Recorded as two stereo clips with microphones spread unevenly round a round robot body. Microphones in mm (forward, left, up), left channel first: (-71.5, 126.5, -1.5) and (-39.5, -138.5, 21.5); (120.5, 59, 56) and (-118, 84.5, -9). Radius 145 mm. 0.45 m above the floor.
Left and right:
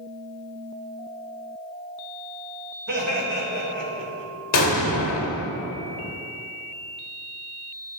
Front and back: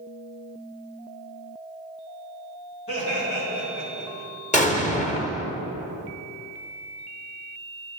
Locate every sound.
2.9 s laughter: 50° right, 2.5 m; by 4.3 s 70° right, 2.5 m
4.5 s an explosion: 60° left, 0.7 m